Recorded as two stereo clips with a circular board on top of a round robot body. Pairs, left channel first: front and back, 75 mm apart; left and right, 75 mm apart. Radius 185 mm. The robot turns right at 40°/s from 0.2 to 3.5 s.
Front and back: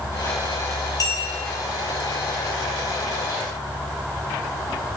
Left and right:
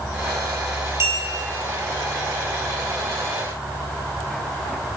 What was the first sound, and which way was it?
A clink, 40° right.